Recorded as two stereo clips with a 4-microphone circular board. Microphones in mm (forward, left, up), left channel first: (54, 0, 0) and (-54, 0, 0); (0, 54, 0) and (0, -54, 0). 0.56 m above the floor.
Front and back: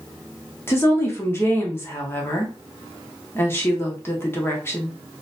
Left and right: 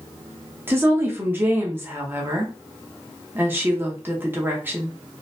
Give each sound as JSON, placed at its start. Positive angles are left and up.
{"t": 0.7, "sound": "a woman speaking", "azimuth_deg": -45, "distance_m": 0.8}